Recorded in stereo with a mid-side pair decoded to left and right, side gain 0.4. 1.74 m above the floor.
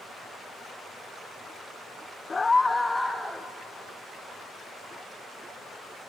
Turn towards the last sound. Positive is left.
turn(degrees=-5)